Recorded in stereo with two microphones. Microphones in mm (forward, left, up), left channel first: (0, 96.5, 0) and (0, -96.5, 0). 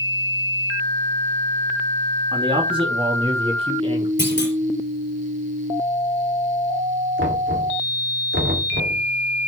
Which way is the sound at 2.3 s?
25° right (ahead or behind).